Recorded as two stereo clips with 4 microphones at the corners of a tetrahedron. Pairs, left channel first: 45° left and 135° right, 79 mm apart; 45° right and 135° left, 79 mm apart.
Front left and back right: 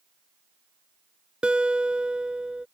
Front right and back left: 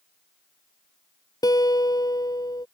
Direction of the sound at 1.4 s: 60° right.